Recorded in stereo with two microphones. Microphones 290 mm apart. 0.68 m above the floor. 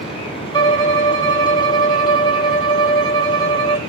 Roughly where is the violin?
Centre.